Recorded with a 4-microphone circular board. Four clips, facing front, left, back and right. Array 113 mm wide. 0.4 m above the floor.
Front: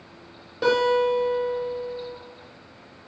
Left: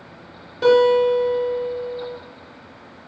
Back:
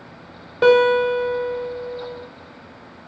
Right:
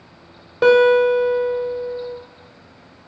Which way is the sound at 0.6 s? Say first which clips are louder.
Right 2 dB, back 6 dB; 120° right.